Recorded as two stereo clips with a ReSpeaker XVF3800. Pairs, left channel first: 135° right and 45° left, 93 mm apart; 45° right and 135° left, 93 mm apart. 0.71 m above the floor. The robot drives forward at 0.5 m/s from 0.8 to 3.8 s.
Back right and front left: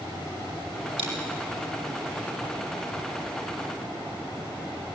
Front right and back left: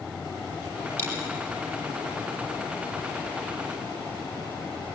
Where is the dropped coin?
20° left, 7.5 m.